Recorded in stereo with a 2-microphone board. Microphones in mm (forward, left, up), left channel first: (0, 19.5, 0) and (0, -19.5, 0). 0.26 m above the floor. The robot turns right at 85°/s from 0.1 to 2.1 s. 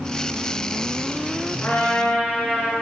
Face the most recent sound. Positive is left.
turn(degrees=125)